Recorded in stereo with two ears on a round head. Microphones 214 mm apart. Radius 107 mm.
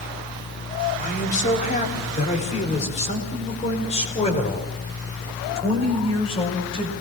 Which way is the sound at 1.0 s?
35° left (ahead or behind).